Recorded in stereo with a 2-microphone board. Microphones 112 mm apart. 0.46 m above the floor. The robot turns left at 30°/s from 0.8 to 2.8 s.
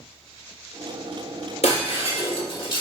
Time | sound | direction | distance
1.6 | breaking glass | 80° left | 1.3 m